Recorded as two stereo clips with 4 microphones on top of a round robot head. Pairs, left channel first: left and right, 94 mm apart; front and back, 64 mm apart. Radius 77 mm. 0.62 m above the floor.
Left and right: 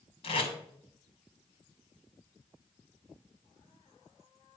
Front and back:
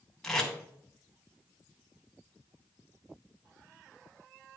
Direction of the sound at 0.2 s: 80° left.